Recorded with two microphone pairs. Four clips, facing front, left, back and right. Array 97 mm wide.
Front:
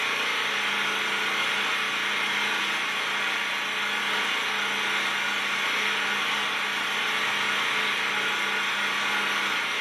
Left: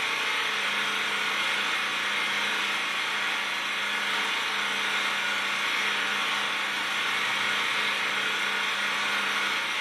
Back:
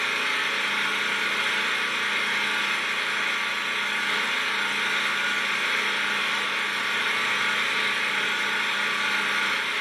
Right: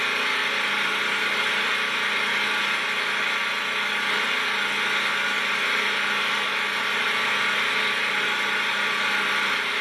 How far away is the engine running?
About 1.9 m.